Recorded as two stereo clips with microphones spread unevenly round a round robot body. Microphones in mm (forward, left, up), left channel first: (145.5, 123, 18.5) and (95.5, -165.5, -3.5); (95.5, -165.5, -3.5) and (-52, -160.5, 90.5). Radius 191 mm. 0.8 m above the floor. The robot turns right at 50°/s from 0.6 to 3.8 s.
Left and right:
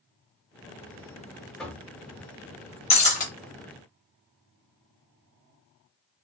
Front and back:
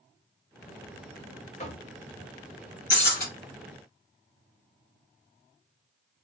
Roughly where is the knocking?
Ahead.